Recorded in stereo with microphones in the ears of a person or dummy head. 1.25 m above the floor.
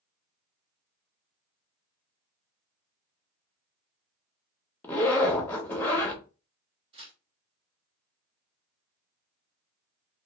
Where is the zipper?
10° left (ahead or behind), 0.8 m.